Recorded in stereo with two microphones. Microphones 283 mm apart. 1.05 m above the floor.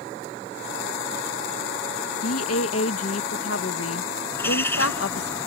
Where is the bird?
10° left (ahead or behind).